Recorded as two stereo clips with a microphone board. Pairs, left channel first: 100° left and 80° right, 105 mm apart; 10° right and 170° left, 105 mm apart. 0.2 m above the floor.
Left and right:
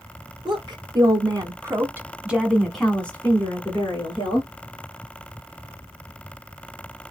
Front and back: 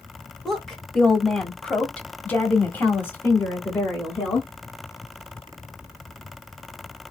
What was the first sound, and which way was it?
A woman speaking, 100° right.